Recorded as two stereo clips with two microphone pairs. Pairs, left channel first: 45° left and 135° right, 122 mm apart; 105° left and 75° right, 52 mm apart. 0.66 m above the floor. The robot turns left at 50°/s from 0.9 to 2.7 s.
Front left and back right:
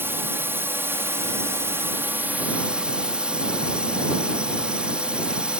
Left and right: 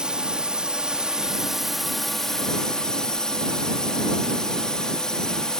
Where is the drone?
110° right; by 5.6 s 160° left.